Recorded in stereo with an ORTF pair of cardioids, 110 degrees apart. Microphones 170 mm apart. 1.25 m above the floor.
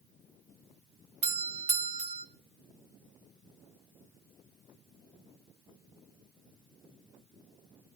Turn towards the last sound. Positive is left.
turn(degrees=-40)